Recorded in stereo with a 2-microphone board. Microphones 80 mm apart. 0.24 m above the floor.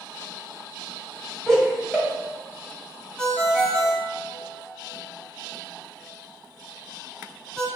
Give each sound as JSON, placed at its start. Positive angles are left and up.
{"t": 1.5, "sound": "laughter", "side_deg": 5, "distance_m": 1.0}
{"t": 3.2, "sound": "a ringtone", "side_deg": 10, "distance_m": 0.5}